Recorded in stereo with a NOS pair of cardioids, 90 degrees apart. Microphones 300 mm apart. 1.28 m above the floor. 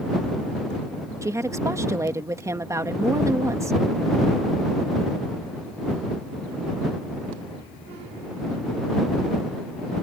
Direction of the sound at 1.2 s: 10° right.